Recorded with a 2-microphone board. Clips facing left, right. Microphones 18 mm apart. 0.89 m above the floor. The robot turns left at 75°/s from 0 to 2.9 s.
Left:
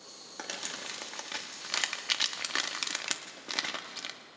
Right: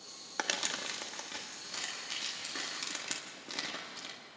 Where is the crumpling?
40° right (ahead or behind), 1.2 m; by 4.1 s 35° left (ahead or behind), 1.2 m.